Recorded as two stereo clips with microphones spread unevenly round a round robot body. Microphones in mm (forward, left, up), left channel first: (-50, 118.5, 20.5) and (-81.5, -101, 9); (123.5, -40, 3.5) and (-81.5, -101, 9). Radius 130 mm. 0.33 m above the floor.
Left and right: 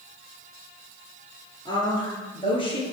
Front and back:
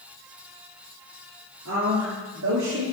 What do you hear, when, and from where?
1.6 s a woman speaking: 155° left, 6 m; by 2.8 s 145° left, 6.5 m